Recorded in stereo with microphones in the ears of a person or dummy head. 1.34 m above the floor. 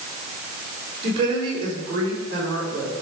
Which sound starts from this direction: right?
A woman speaking, at 1.0 s.